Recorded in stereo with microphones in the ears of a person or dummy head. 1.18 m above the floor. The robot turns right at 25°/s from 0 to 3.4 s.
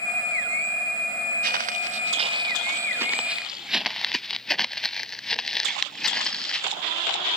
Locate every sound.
1.4 s footsteps: 60° right (ahead or behind); by 6.7 s centre (ahead or behind)